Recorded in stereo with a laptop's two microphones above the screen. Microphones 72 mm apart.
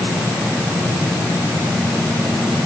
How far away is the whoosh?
I don't hear a whoosh.